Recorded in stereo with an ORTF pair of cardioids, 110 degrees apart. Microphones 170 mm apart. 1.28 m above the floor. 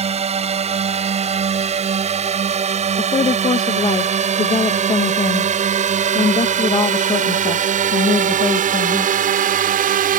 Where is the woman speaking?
30° left.